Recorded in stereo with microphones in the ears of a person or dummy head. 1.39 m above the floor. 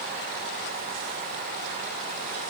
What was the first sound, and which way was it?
Only background noise.